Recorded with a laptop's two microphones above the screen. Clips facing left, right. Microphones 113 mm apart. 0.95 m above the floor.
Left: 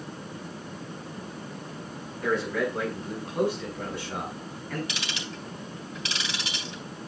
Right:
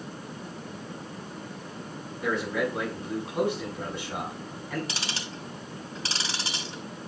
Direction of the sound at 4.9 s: 35° right (ahead or behind).